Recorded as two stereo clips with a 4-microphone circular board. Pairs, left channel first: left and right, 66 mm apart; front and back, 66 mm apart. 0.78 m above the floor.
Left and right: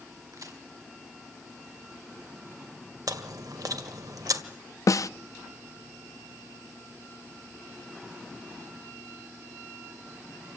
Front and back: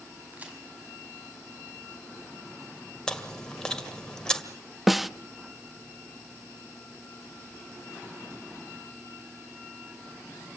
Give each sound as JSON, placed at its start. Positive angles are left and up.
{"t": 0.3, "sound": "a crack", "azimuth_deg": -115, "distance_m": 5.5}
{"t": 3.1, "sound": "chewing", "azimuth_deg": -75, "distance_m": 1.8}
{"t": 4.9, "sound": "a snare drum", "azimuth_deg": 95, "distance_m": 0.5}